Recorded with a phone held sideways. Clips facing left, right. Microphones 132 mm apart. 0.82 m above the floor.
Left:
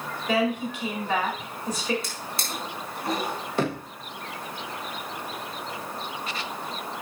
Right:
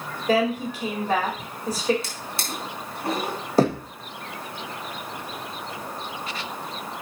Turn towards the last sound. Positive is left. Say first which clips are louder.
# right 8 dB
turn(degrees=-35)  # may be behind; listen again after turning